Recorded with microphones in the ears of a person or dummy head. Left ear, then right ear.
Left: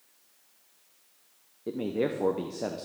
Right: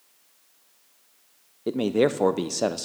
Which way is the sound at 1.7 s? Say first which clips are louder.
Right 8 dB; 80° right.